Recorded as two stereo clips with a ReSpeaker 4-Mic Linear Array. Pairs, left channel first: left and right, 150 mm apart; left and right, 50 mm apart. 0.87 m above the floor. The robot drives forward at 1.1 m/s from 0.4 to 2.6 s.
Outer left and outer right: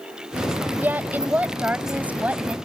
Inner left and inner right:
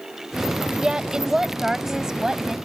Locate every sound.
0.8 s a woman speaking: 10° right (ahead or behind)